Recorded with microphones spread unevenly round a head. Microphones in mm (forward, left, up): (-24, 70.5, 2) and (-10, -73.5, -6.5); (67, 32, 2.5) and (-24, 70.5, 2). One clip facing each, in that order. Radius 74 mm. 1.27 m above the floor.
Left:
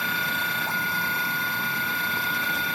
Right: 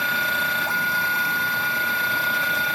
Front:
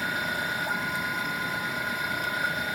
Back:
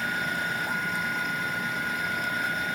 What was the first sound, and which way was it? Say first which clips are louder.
A machine running: right 3 dB, even; 110° right.